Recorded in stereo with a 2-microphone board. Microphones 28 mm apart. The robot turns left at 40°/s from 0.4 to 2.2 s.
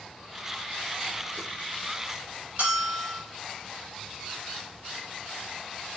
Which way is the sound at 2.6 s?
55° right (ahead or behind).